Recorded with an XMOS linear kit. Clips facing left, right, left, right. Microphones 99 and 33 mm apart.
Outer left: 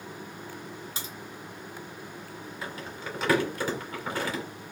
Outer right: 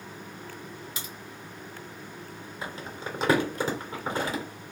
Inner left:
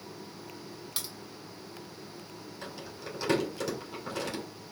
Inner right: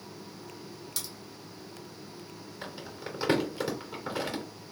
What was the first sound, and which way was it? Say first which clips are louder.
A crack: outer left 1 dB, inner left 1 dB; 30° left (ahead or behind).